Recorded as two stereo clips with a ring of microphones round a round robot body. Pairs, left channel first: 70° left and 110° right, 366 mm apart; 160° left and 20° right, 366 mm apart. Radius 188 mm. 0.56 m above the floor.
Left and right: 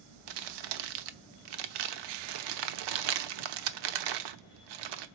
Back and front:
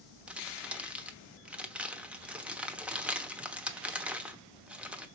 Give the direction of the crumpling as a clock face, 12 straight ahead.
4 o'clock.